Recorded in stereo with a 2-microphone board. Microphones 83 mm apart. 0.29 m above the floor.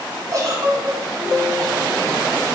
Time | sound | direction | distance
0.3 | a giggle | 45° right (ahead or behind) | 1.6 m